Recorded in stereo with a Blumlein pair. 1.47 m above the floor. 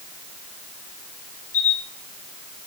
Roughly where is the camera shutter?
Left.